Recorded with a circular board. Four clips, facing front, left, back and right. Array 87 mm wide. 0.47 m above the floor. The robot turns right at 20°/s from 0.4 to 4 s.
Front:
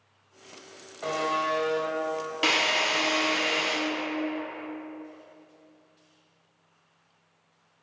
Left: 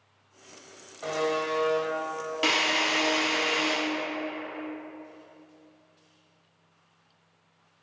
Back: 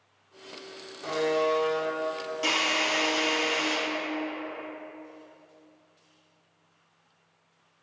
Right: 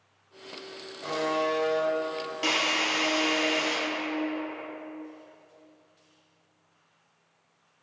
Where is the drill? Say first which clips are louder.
Left 2 dB, front 2 dB; 30° left, 0.6 m; by 3.8 s 55° left, 0.6 m.